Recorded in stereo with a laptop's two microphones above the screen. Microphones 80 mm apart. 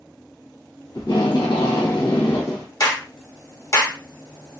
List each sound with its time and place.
0.9 s tape being pulled: 60° left (ahead or behind), 1.1 m
2.8 s a clap: 40° left (ahead or behind), 1.0 m